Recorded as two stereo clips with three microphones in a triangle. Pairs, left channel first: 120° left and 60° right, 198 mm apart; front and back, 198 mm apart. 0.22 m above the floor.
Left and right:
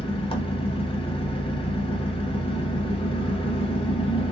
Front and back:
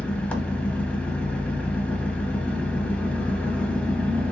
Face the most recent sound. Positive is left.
turn(degrees=80)